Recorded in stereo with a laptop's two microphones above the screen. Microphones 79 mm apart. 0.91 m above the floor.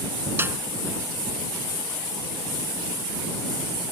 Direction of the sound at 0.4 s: 30° right (ahead or behind).